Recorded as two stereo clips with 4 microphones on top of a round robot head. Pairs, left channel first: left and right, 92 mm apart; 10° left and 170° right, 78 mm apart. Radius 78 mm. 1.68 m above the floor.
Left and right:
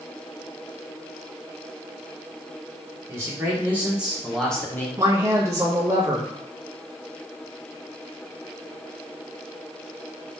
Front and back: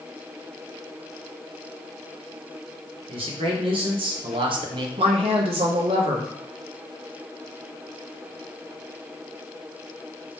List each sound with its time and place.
3.1 s a man speaking: 160° right, 1.3 m; by 4.9 s 160° left, 0.6 m
5.0 s a woman speaking: 160° right, 0.6 m